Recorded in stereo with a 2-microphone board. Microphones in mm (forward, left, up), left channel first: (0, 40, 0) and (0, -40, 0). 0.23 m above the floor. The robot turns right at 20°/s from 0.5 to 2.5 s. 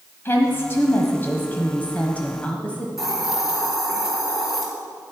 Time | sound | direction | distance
0.2 | a woman speaking | 105° left | 1.1 m
3.0 | a hiss | 5° right (ahead or behind) | 3 m